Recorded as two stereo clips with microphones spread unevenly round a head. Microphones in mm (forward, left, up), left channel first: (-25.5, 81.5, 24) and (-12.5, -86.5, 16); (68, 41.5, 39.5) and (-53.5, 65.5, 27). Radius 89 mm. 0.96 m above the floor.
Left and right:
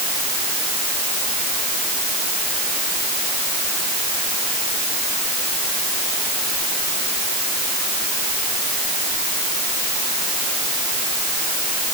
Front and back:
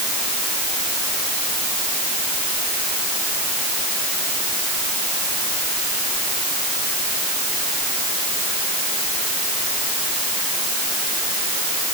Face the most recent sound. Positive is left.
No sound to turn to.